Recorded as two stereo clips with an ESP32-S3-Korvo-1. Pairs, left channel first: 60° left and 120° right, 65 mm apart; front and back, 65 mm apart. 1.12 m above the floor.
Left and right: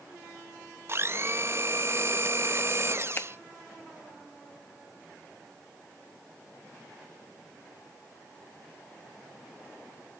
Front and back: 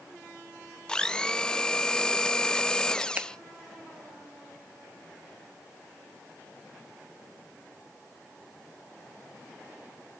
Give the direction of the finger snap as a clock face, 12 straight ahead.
8 o'clock.